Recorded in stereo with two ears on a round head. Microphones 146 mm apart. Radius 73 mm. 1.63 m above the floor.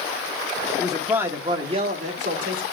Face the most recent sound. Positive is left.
turn(degrees=-55)  # may be behind; listen again after turning